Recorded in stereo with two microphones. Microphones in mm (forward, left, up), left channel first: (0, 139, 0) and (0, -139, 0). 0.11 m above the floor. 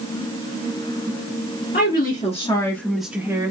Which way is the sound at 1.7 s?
35° left (ahead or behind).